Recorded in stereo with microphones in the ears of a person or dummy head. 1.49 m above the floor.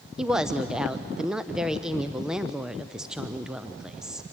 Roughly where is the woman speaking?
Centre.